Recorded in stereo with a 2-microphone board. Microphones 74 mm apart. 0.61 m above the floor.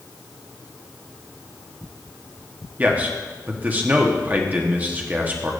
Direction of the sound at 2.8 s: 20° right (ahead or behind).